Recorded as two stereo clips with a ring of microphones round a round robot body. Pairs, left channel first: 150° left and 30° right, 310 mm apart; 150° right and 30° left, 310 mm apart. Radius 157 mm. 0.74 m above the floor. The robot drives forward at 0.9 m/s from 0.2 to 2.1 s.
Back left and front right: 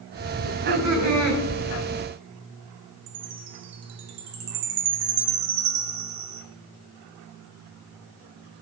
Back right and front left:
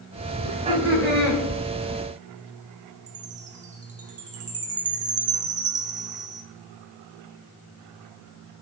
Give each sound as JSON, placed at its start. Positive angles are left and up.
{"t": 0.4, "sound": "laughter", "azimuth_deg": -55, "distance_m": 4.0}
{"t": 3.1, "sound": "a chime", "azimuth_deg": -35, "distance_m": 0.9}